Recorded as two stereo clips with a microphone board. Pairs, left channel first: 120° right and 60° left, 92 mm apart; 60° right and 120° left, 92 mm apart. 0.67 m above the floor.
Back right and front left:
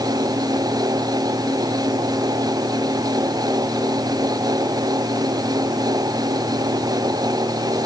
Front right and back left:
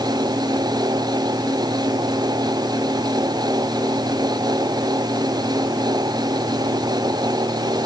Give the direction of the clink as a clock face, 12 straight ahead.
No clink in this recording.